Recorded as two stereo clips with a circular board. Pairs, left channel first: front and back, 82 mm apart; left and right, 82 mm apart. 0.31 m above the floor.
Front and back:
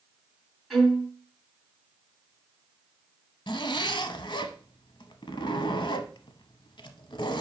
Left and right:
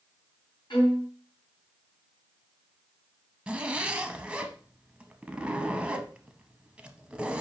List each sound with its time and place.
0.7 s a violin: 90° left, 3 m
3.5 s a zipper: 15° right, 0.8 m